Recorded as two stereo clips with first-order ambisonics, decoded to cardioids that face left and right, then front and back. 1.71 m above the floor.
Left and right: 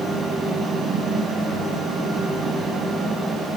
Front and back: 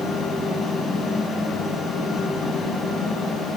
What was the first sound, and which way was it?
Only background noise.